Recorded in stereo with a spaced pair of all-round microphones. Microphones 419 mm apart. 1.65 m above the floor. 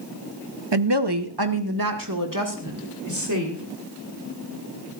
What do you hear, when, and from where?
0.7 s a woman speaking: 80° right, 1.1 m; by 3.6 s 40° right (ahead or behind), 4 m